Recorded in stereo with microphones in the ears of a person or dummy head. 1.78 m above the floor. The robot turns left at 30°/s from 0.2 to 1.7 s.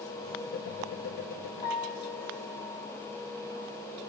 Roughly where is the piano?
Left.